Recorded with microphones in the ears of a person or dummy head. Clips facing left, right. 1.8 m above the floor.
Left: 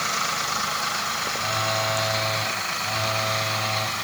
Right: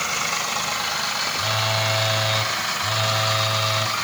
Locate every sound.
1.3 s a phone buzzing: 50° right (ahead or behind), 6 m